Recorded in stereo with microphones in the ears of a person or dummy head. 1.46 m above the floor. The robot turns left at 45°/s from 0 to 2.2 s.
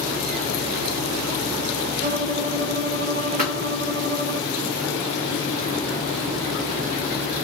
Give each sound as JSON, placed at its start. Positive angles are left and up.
{"t": 2.0, "sound": "a violin", "side_deg": -70, "distance_m": 2.0}
{"t": 3.4, "sound": "a thud", "side_deg": -40, "distance_m": 1.4}